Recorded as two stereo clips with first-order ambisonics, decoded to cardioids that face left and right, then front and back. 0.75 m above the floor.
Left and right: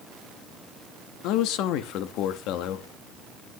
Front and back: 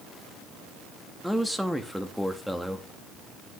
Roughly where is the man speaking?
Left.